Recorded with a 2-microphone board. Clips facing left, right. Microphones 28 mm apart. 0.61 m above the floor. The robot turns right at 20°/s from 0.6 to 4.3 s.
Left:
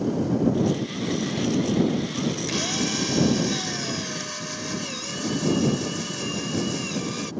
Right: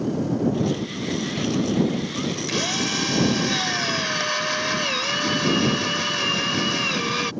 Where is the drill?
165° right; by 7.3 s 130° right.